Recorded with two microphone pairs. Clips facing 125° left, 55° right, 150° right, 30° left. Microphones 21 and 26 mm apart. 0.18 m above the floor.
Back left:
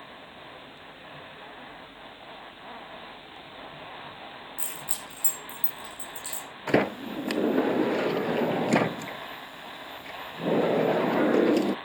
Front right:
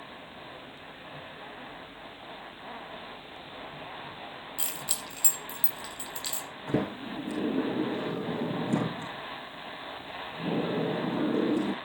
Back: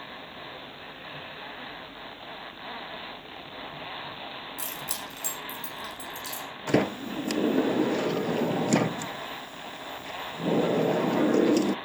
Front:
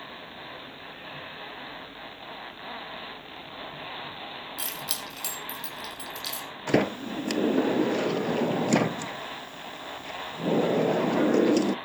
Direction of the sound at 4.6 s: 10° right.